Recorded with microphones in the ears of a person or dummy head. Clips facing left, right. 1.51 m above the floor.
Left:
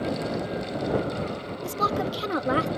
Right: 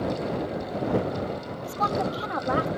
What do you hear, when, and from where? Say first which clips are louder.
1.6 s a woman speaking: even; 40° left (ahead or behind)